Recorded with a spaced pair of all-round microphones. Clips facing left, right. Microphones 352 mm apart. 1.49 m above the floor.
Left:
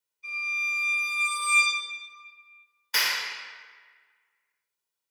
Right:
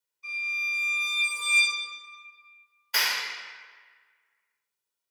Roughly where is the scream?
No scream in this recording.